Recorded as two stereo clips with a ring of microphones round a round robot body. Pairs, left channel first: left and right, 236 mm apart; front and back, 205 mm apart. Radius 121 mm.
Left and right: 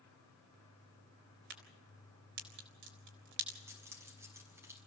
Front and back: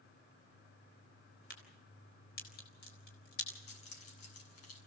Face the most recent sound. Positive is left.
turn(degrees=-10)